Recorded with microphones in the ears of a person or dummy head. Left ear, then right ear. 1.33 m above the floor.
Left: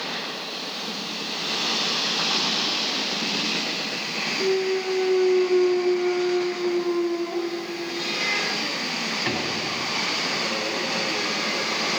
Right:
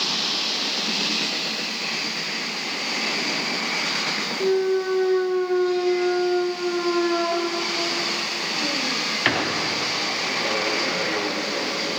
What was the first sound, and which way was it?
A clunk, 45° right (ahead or behind).